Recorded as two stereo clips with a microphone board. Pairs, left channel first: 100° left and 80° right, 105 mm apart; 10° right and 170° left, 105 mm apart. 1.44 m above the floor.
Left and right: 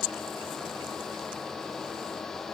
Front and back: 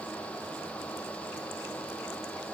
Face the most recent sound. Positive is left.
No sound to turn to.